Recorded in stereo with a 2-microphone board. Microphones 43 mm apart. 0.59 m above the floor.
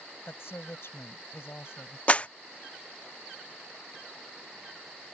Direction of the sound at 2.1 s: 30° left (ahead or behind).